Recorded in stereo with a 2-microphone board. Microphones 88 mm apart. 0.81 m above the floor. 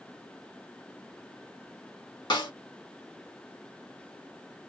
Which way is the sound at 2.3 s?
55° left (ahead or behind).